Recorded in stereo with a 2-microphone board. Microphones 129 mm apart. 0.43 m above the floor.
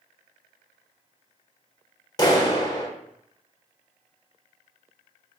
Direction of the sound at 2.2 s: 30° left (ahead or behind).